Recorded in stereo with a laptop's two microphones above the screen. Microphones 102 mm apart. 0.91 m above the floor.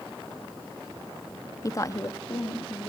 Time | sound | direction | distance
1.6 | a woman speaking | 35° left (ahead or behind) | 0.8 m